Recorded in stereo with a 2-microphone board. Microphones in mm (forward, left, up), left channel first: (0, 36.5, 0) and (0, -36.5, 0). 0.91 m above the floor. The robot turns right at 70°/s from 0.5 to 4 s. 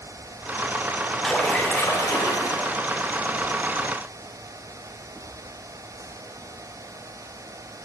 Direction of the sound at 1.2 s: Straight ahead.